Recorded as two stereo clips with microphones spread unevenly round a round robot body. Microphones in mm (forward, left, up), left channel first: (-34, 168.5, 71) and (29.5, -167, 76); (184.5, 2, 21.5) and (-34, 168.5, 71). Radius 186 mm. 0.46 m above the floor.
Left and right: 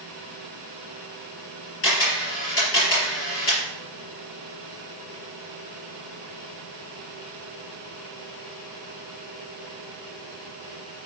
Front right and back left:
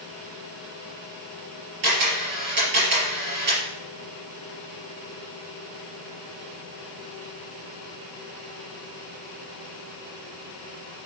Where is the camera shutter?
155° left, 5 m.